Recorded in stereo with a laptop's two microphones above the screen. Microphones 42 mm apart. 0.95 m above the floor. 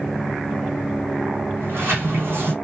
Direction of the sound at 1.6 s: 60° right (ahead or behind).